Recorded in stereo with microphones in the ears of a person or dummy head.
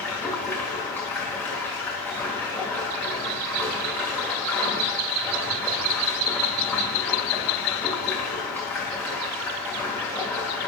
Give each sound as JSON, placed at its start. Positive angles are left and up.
{"t": 0.0, "sound": "running water", "side_deg": 10, "distance_m": 2.0}